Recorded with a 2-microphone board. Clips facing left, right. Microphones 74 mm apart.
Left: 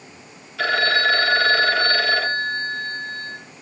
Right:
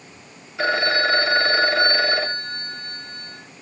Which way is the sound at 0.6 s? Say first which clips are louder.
Left 1 dB; 25° right (ahead or behind).